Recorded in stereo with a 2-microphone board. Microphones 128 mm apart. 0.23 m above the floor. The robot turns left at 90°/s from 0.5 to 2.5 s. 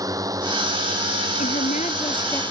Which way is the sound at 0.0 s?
30° right.